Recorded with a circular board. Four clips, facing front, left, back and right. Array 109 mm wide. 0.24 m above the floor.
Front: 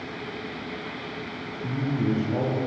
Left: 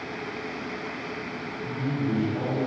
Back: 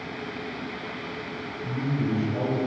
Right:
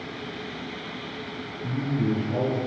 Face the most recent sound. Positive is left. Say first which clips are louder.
# right 2 dB, front 2 dB
turn(degrees=-45)